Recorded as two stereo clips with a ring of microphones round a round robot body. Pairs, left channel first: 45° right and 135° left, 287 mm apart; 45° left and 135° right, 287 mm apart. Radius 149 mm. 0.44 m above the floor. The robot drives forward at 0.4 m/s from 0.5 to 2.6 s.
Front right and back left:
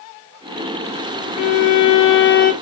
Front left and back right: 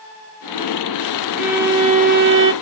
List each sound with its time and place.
1.4 s a violin: 45° right, 0.6 m; by 2.5 s 105° right, 0.5 m